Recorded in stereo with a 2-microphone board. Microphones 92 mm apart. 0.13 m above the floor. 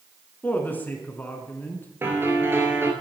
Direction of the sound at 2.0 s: 25° right (ahead or behind).